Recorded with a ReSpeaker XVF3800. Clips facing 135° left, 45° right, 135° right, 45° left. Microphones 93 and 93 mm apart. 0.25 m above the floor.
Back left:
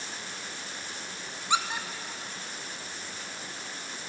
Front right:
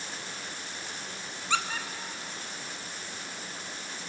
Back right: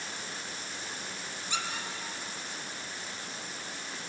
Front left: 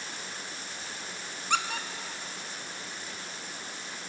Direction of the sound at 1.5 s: 65° left.